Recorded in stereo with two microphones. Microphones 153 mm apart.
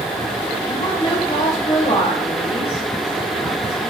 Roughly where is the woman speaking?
Left.